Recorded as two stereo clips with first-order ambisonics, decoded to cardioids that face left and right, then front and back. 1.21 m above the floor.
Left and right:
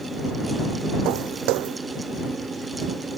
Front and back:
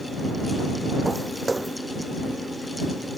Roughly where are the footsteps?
Right.